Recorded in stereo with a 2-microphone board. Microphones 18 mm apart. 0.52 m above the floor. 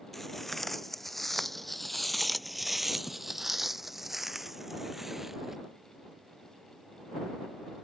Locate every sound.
0.1 s footsteps: 10° left (ahead or behind); by 5.6 s 15° right (ahead or behind)